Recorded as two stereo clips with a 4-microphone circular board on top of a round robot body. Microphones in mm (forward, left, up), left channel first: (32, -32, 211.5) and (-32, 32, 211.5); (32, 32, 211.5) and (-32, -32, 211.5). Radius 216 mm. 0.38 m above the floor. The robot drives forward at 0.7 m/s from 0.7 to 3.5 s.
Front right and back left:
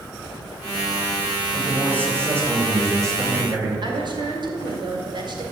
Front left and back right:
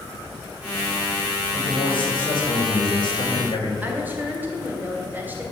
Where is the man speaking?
65° left, 4 m; by 3.7 s 85° left, 3.5 m.